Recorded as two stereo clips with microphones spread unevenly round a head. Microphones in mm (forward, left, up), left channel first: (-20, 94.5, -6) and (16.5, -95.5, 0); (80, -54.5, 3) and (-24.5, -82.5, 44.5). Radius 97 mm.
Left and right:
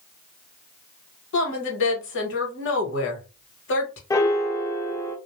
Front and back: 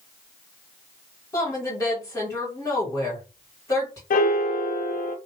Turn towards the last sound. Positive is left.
turn(degrees=30)